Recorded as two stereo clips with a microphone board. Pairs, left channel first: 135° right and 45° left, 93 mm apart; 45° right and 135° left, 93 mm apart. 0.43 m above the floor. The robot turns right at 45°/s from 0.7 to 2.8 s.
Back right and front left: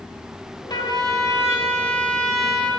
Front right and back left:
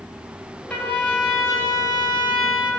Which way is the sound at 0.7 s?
120° right.